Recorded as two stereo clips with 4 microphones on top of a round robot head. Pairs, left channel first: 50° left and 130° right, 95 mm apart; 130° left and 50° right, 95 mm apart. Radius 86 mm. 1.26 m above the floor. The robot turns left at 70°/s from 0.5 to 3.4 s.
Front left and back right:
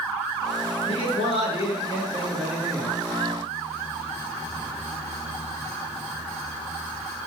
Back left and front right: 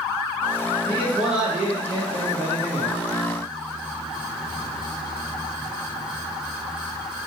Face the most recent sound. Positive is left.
turn(degrees=-110)